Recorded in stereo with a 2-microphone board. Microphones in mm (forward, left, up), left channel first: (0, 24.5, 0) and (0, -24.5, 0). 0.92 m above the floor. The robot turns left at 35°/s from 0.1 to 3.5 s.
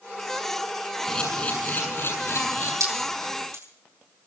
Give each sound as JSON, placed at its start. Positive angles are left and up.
{"t": 1.1, "sound": "a camera shutter", "azimuth_deg": 170, "distance_m": 7.0}
{"t": 2.8, "sound": "dripping", "side_deg": -85, "distance_m": 8.5}